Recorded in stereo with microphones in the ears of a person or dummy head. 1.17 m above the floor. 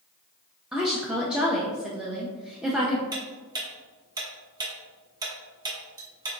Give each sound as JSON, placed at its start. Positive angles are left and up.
{"t": 0.7, "sound": "a woman speaking", "side_deg": -5, "distance_m": 0.5}
{"t": 3.1, "sound": "ticking", "side_deg": -20, "distance_m": 0.8}